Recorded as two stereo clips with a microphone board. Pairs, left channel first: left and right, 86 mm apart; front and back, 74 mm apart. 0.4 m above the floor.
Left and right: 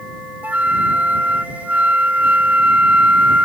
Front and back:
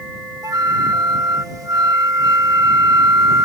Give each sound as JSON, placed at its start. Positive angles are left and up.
{"t": 0.4, "sound": "a flute", "azimuth_deg": -160}